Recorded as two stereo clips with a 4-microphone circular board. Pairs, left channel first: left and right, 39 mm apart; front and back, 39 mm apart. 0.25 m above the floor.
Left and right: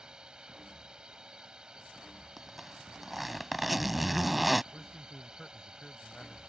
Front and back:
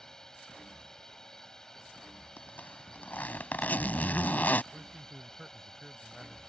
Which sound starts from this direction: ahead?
A zipper, at 2.4 s.